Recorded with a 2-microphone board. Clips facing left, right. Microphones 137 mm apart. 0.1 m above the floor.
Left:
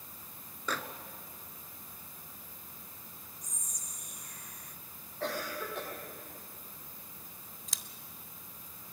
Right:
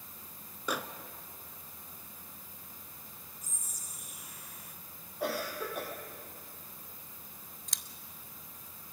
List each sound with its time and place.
0.7 s a microwave: 10° right (ahead or behind), 0.9 m
3.4 s whispering: 5° right (ahead or behind), 1.1 m
5.2 s a cough: 10° right (ahead or behind), 4 m
7.7 s scissors: centre (ahead or behind), 0.6 m